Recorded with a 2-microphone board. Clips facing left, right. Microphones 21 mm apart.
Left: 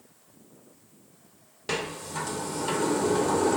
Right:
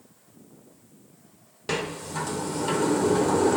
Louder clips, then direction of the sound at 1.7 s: Right 2 dB; 5° right (ahead or behind).